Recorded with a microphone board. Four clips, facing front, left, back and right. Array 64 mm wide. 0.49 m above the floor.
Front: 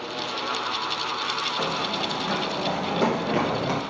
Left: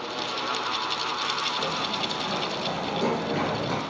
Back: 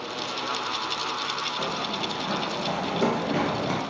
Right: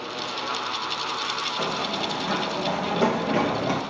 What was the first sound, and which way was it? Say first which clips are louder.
Running footsteps: right 2 dB, front 2 dB; 35° right.